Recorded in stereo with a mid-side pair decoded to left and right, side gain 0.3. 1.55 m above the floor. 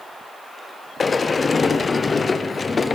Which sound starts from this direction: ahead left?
A sliding door, at 1.0 s.